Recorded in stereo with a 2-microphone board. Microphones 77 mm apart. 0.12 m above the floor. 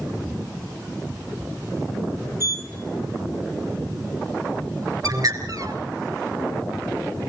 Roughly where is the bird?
Right.